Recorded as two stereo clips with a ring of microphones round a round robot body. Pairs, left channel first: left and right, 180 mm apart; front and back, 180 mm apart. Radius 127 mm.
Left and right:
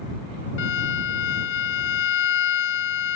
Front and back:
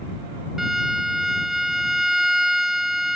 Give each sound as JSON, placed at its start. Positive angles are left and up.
{"t": 0.6, "sound": "a violin", "azimuth_deg": 90}